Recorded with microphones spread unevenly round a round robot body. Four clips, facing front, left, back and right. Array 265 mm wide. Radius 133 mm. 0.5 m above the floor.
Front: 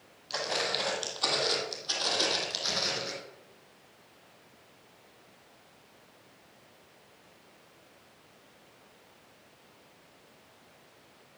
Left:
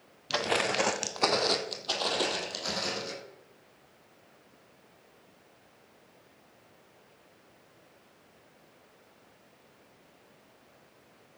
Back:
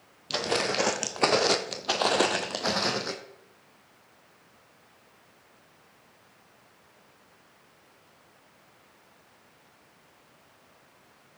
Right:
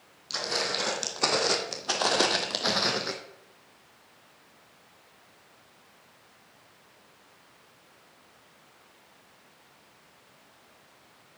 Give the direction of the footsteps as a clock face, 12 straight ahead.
7 o'clock.